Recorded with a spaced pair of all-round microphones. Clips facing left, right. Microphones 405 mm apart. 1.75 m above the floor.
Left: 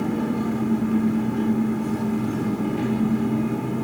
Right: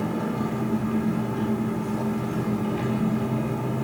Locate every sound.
0.0 s an engine running: 55° left (ahead or behind), 3 m